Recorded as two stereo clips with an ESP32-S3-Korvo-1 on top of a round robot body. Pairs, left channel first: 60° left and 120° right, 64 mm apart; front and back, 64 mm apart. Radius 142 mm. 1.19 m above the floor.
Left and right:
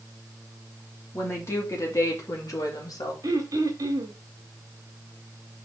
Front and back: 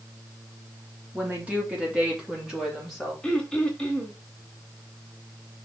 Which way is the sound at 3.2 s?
75° right.